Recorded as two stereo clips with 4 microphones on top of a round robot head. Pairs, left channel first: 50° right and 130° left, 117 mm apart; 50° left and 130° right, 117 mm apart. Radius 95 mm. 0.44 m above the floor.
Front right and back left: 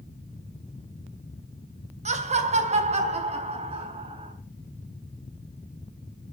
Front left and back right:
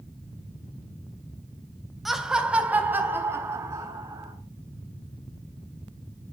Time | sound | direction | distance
2.0 | laughter | 140° left | 3 m